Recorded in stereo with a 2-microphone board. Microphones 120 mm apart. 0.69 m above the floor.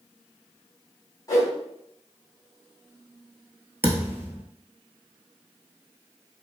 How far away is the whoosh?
About 1.4 m.